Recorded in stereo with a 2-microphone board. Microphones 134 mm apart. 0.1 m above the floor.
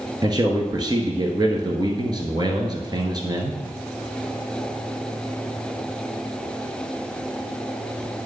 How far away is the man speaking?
About 1.3 m.